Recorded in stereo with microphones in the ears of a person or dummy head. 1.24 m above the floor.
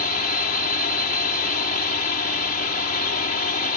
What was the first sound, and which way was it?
A drone, 50° left (ahead or behind).